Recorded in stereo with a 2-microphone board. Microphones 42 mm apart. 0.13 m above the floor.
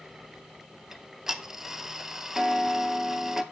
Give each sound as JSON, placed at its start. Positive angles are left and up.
{"t": 0.9, "sound": "ticking", "side_deg": -10, "distance_m": 0.6}